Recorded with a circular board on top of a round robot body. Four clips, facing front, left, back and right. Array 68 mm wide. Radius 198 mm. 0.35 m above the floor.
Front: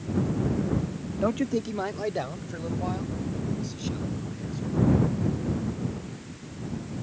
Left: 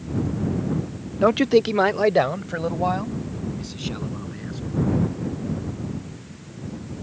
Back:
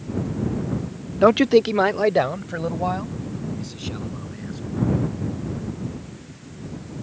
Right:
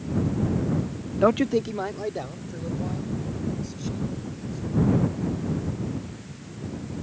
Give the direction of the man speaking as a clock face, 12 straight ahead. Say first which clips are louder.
Left 4 dB, back 12 dB; 6 o'clock.